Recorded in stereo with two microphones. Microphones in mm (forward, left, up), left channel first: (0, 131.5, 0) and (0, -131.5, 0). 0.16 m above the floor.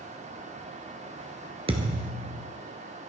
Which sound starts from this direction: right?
A thud, at 1.7 s.